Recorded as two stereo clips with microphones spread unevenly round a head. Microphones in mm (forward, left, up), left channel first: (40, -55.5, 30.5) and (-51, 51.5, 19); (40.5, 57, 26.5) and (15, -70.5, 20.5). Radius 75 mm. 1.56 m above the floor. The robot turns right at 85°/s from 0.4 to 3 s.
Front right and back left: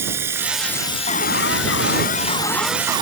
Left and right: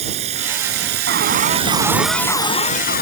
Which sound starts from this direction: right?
An alarm, at 1.1 s.